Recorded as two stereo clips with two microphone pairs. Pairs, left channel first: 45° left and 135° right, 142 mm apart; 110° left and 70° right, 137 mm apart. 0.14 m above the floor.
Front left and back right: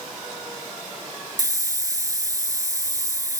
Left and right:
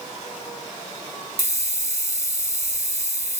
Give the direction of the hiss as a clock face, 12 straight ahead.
2 o'clock.